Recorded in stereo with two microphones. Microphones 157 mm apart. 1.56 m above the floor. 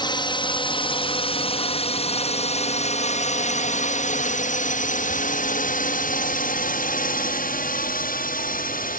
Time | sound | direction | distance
0.0 | a drone | 30° left (ahead or behind) | ?